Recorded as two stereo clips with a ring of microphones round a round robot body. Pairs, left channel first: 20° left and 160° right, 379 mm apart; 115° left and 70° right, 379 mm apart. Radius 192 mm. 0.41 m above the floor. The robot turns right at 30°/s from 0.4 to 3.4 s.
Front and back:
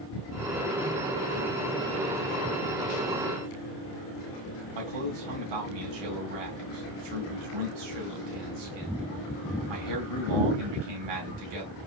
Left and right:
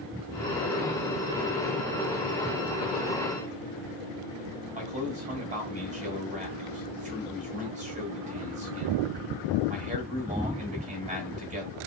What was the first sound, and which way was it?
A man speaking, 140° right.